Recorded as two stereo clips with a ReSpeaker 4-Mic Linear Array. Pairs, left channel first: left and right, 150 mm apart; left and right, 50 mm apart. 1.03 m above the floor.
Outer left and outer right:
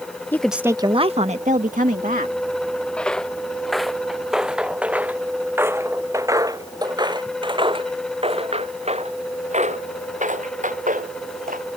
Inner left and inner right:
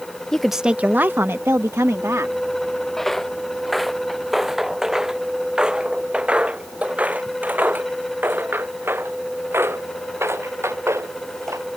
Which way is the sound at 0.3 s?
15° left (ahead or behind).